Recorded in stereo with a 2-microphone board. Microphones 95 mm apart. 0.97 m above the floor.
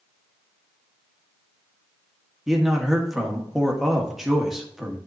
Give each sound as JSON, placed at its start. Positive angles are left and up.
{"t": 2.5, "sound": "a man speaking", "side_deg": -5, "distance_m": 1.4}